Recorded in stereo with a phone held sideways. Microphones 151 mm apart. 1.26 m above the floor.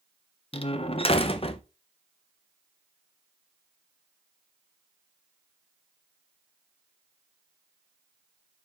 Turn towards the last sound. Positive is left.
turn(degrees=45)  # may be behind; listen again after turning